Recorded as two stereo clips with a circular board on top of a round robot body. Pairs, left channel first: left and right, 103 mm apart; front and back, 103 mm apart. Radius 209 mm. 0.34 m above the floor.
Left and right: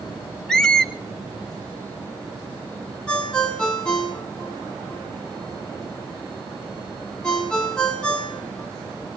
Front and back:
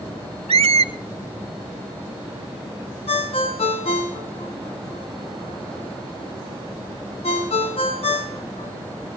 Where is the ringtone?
10° left, 3 m.